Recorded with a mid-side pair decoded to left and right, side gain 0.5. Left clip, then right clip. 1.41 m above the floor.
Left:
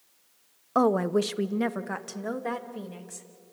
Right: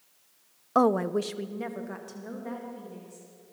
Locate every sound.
0.8 s a woman speaking: 10° right, 0.6 m; by 3.3 s 65° left, 3 m